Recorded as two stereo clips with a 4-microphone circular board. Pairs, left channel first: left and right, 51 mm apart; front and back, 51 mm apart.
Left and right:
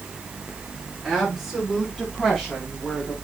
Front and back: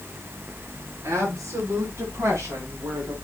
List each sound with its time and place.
1.0 s a woman speaking: straight behind, 6.5 m; by 3.1 s 165° left, 4.5 m